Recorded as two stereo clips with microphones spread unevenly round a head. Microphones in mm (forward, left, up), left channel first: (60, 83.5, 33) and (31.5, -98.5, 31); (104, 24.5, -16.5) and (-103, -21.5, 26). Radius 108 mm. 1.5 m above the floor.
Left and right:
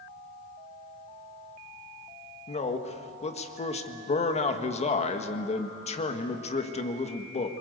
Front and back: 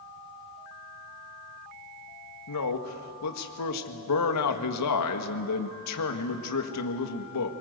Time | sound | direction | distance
2.5 | a man speaking | 25° left | 1.7 m